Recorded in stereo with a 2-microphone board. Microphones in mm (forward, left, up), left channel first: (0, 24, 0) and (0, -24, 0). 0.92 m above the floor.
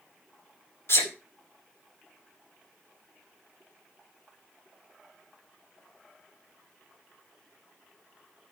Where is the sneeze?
60° left (ahead or behind), 2 m.